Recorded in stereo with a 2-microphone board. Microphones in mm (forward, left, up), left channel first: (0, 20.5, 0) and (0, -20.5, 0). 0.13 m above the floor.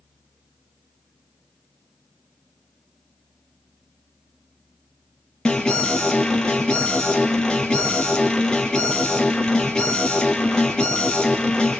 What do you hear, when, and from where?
5.5 s an alarm: 20° left (ahead or behind), 4 m